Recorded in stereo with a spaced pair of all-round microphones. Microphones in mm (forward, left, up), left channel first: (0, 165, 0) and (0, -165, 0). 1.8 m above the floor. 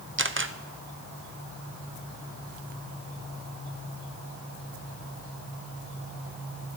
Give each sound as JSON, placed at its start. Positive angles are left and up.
{"t": 0.2, "sound": "a camera shutter", "side_deg": -35, "distance_m": 0.8}